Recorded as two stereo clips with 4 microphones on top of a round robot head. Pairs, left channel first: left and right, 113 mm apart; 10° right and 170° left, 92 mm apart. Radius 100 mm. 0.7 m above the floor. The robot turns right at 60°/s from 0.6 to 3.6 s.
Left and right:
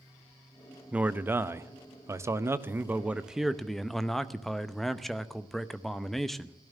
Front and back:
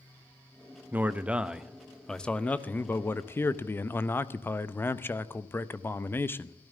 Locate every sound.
0.9 s a man speaking: 155° right, 0.8 m; by 6.6 s 5° left, 0.8 m